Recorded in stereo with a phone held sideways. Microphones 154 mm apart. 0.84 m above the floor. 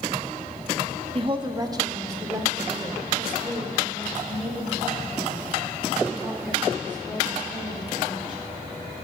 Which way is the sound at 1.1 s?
35° right (ahead or behind).